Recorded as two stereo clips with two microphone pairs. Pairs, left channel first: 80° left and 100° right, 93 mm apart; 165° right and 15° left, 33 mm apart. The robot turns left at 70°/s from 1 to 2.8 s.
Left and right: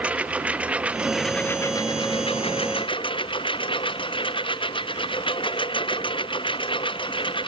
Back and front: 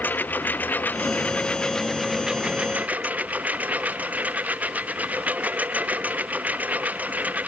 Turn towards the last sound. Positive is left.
turn(degrees=55)